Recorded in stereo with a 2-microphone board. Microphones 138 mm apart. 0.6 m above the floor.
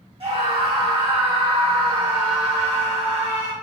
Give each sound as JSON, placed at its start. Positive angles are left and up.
{"t": 0.2, "sound": "a scream", "side_deg": -45, "distance_m": 1.6}